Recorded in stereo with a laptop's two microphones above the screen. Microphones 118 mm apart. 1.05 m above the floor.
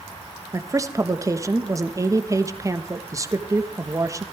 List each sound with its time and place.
0.5 s a woman speaking: 25° right (ahead or behind), 1.2 m